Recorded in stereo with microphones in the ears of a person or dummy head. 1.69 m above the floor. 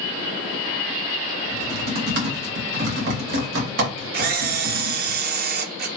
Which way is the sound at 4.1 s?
55° right (ahead or behind).